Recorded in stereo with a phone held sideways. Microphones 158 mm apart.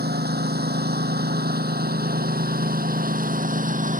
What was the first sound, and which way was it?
A lawn mower, 85° right.